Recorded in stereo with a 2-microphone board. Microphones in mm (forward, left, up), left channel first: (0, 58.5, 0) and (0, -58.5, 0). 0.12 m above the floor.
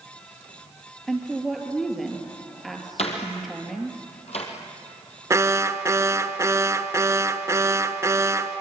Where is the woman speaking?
Centre (ahead or behind), 3 m.